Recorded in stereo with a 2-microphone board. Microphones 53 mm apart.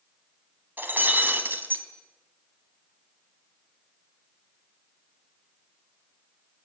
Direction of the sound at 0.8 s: 40° right (ahead or behind).